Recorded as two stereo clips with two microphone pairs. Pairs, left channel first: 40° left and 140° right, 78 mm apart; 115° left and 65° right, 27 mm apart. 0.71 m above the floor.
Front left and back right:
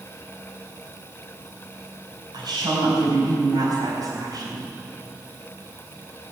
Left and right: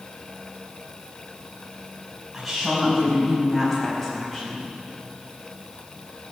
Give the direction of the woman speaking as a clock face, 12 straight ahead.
5 o'clock.